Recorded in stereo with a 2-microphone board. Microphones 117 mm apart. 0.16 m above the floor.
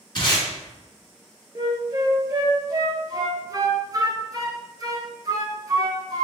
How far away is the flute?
About 0.8 m.